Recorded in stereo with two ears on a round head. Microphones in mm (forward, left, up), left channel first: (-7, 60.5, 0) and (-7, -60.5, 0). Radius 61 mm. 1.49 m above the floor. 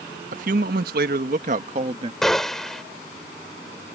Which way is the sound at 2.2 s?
5° left (ahead or behind).